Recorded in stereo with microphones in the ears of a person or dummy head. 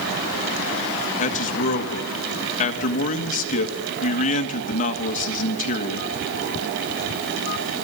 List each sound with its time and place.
1.2 s a man speaking: 45° left (ahead or behind), 1.7 m